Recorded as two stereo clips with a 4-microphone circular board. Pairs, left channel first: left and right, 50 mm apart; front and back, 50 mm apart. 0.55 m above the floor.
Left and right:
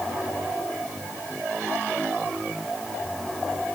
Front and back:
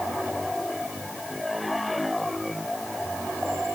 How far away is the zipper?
No zipper in this recording.